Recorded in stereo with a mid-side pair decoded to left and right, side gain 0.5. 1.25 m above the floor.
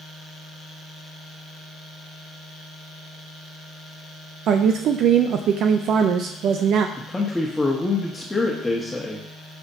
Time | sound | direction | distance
4.5 | a woman speaking | 65° right | 0.6 m
7.0 | a man speaking | 10° left | 1.5 m